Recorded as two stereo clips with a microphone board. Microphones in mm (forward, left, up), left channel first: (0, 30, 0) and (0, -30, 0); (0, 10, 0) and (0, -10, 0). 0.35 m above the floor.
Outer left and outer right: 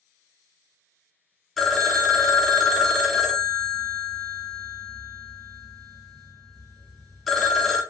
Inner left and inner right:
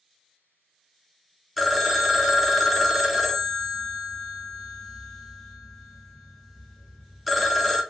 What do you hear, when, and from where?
1.6 s a phone ringing: centre (ahead or behind), 0.6 m